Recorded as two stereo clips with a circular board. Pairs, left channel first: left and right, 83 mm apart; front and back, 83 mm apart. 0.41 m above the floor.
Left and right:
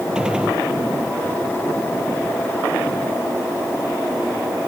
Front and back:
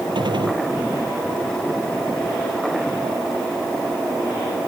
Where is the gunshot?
170° right.